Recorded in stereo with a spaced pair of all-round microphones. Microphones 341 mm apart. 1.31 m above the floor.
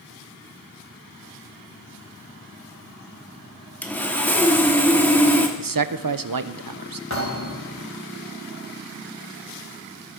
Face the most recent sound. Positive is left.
turn(degrees=50)  # may be behind; listen again after turning